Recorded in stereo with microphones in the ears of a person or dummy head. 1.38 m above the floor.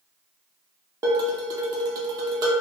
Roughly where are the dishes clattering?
Right.